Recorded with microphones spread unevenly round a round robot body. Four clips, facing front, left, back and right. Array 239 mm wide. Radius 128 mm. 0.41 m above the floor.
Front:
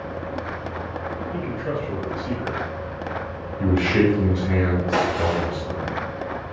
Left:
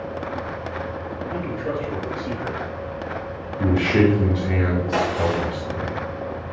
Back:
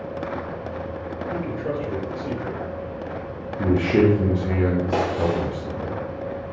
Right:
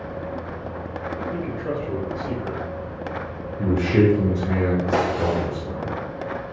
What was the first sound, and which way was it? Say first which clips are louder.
A man speaking: left 4 dB, back 2 dB; straight behind.